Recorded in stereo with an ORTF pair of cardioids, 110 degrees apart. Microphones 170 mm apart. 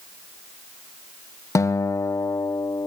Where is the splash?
No splash in this recording.